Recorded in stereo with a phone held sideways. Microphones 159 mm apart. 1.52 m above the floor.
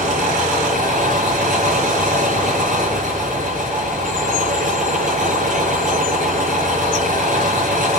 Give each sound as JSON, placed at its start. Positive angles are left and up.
{"t": 0.0, "sound": "an engine running", "side_deg": -60, "distance_m": 7.5}